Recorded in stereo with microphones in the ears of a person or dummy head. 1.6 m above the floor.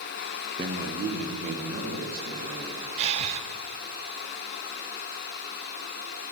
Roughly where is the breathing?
Right.